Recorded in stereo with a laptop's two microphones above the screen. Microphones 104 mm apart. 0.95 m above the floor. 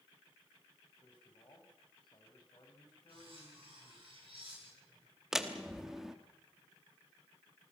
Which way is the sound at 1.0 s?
45° left (ahead or behind).